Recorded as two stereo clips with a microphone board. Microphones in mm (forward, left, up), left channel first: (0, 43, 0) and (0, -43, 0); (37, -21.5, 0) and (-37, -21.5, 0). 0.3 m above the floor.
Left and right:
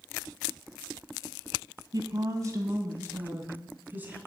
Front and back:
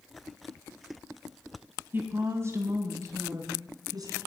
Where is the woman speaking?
125° right, 2 m; by 4.2 s 160° right, 3 m.